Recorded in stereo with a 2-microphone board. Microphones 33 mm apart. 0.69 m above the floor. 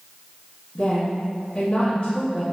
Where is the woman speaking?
40° left (ahead or behind), 1.4 m.